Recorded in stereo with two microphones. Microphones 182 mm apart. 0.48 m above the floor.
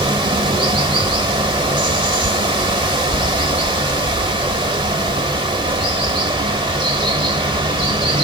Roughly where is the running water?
Right.